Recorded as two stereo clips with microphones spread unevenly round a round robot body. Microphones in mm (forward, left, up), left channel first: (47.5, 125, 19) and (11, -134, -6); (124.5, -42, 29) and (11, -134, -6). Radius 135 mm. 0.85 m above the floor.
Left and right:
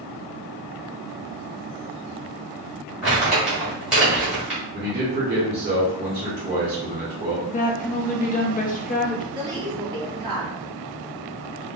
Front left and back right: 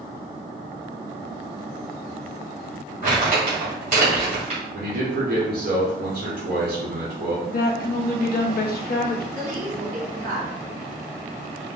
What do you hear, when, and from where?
3.0 s crumpling: 175° left, 1.6 m
4.7 s a man speaking: 170° right, 1.6 m
7.5 s a woman speaking: 20° left, 0.7 m
9.3 s a woman speaking: 170° right, 1.3 m